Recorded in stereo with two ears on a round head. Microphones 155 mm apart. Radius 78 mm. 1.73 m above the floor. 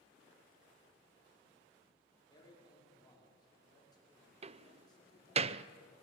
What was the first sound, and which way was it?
A man speaking, 25° left (ahead or behind).